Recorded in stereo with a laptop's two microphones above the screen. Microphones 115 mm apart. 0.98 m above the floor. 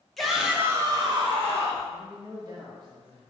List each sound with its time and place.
0.2 s a shout: centre (ahead or behind), 1.1 m; by 1.9 s 60° right (ahead or behind), 1.3 m
1.9 s a man speaking: 35° right (ahead or behind), 1.4 m